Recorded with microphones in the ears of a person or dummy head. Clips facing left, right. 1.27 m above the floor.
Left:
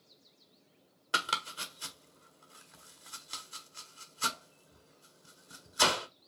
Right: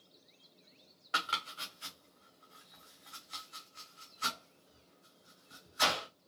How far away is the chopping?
About 0.9 m.